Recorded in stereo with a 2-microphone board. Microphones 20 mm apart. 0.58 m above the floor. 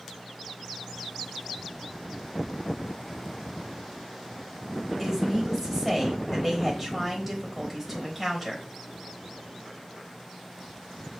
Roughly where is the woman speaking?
Centre.